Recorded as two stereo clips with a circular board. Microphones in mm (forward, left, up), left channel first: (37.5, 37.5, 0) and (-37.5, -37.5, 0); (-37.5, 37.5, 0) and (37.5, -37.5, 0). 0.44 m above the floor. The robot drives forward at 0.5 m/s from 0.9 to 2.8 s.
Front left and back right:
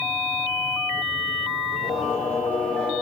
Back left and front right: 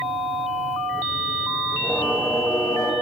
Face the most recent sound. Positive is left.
turn(degrees=115)